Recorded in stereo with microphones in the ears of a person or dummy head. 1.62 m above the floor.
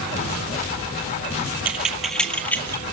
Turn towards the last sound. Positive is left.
turn(degrees=15)  # may be behind; listen again after turning